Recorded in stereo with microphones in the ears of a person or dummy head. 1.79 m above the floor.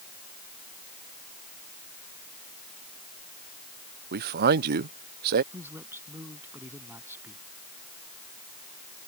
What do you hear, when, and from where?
4.1 s a man speaking: 45° right (ahead or behind)
5.5 s a man speaking: 15° right (ahead or behind)